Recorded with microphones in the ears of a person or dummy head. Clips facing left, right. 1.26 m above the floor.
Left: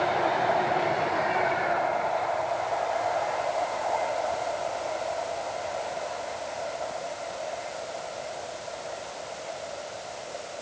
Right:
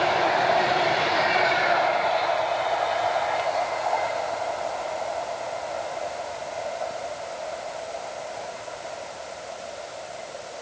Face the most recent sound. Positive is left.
No sound to turn to.